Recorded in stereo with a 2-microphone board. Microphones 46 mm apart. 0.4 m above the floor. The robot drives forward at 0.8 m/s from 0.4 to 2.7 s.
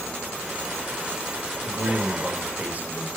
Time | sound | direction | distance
1.6 | a man speaking | 40° right (ahead or behind) | 1.8 m